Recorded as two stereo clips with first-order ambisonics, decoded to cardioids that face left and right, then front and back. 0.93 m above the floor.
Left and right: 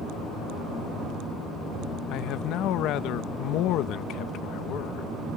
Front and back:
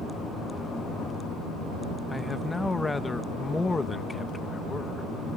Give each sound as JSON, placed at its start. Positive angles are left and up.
{"t": 2.1, "sound": "a man speaking", "azimuth_deg": 80}